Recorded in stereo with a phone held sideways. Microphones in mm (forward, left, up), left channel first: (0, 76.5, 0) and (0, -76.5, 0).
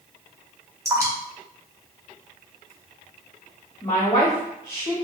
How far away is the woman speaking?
About 1.4 m.